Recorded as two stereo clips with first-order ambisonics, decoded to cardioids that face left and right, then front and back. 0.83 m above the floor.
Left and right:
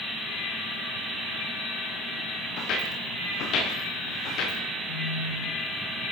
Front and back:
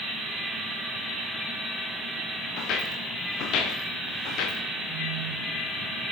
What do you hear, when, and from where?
2.6 s footsteps: 45° left, 5 m
4.9 s a phone buzzing: 80° left, 3 m